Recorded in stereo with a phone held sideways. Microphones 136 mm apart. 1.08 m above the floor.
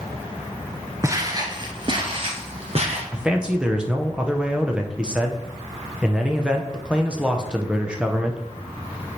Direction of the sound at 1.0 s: 25° right (ahead or behind).